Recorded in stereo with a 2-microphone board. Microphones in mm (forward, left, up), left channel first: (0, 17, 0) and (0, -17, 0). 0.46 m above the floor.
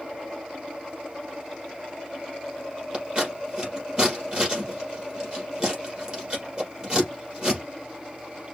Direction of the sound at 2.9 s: 25° right (ahead or behind).